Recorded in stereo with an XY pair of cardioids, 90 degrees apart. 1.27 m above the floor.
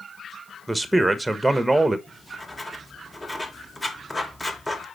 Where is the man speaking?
10° right, 1.0 m.